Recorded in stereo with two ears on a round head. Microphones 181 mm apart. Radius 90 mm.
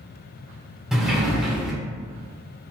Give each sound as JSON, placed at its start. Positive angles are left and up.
{"t": 0.9, "sound": "a sliding door", "side_deg": -5, "distance_m": 1.0}